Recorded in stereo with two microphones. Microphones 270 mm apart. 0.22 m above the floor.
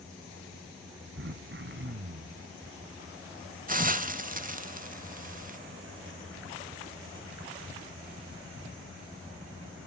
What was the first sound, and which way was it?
Throat clearing, 50° right (ahead or behind).